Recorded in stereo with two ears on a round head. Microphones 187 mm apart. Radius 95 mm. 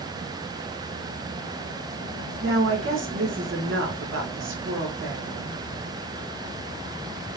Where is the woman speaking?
65° right (ahead or behind), 1.9 m.